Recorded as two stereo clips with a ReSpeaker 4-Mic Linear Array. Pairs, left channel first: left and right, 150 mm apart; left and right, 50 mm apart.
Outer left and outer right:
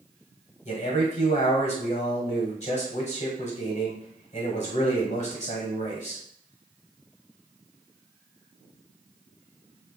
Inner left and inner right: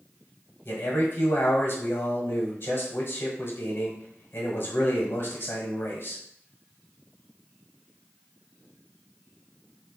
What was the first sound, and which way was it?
A man speaking, 50° left (ahead or behind).